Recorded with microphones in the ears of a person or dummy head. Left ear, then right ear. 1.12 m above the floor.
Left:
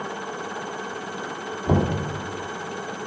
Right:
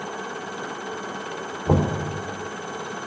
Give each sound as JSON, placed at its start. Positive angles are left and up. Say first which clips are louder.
{"t": 1.7, "sound": "knocking", "louder": "right 1 dB", "side_deg": 15, "distance_m": 2.5}